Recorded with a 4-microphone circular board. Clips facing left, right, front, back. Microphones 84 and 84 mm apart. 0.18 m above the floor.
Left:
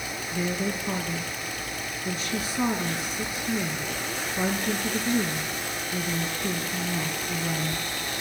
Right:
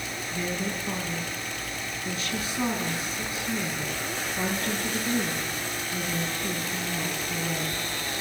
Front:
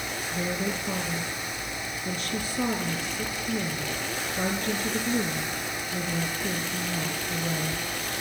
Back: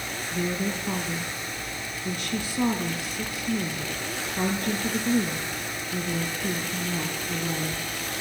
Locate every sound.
0.3 s a woman speaking: 175° left, 5 m